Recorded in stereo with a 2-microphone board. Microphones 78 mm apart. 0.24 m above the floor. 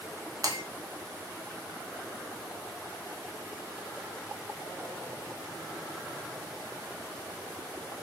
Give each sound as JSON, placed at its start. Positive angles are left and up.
{"t": 0.4, "sound": "breaking glass", "side_deg": -50, "distance_m": 0.7}